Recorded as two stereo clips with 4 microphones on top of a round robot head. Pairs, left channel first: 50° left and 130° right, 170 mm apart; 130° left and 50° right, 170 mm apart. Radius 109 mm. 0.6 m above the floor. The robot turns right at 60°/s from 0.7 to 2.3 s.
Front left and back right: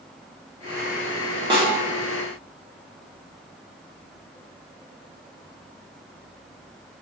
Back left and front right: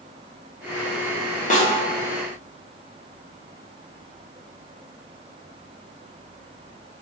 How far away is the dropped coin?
No dropped coin in this recording.